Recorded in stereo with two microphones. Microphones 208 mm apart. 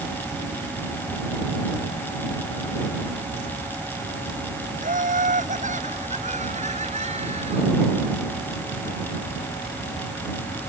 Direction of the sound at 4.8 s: 40° right (ahead or behind).